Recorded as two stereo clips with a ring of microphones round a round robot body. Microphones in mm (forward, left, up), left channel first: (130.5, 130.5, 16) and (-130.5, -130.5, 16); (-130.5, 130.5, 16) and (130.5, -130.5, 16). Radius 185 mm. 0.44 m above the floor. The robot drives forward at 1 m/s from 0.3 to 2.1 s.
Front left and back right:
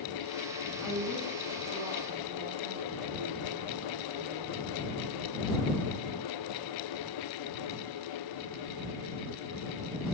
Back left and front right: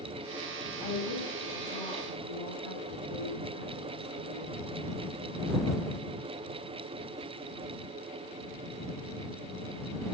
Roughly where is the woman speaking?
Behind left.